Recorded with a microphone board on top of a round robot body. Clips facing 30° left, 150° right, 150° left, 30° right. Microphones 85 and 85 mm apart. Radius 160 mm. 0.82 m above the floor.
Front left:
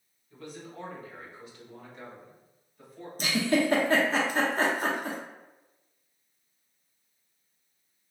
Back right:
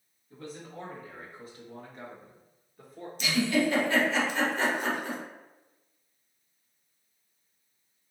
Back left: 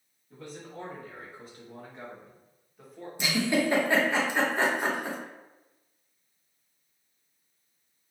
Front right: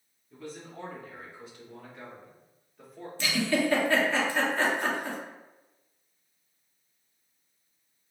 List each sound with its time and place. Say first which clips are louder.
0.3 s a man speaking: back right 1 dB, even; 155° left, 1.7 m; by 3.1 s 115° right, 1.2 m
3.2 s a giggle: front left 1 dB, back left 1 dB; 75° left, 0.8 m